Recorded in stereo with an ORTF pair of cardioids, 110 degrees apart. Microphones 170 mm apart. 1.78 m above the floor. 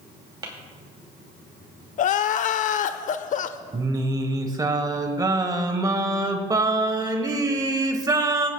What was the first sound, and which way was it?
Tapping, 25° right.